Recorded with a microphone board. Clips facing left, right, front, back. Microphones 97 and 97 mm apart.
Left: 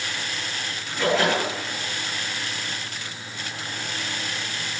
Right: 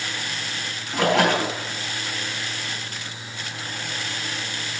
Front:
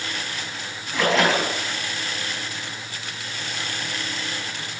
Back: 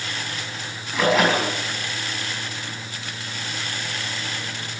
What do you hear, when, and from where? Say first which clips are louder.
0.9 s a splash: right 2 dB, back 1 dB; 95° right, 4.5 m